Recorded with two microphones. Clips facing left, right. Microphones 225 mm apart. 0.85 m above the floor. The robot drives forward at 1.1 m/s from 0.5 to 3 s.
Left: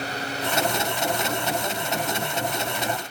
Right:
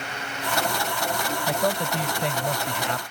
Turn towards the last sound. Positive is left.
turn(degrees=-80)